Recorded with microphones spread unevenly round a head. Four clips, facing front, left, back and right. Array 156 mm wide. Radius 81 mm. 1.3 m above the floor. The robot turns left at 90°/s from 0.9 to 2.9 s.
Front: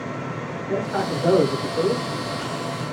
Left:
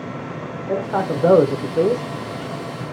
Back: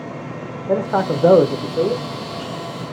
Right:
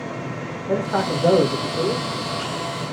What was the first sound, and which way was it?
A man speaking, 175° right.